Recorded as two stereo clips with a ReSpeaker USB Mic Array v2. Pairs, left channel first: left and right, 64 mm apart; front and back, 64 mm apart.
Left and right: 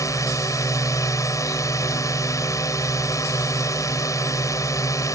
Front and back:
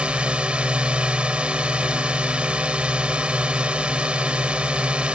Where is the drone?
110° left.